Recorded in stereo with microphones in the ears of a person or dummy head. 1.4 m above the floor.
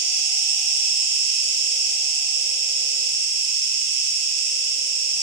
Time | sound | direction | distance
0.0 | an insect | 55° right (ahead or behind) | 0.9 m